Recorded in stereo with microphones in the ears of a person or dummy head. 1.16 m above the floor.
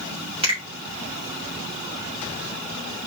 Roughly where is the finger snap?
Right.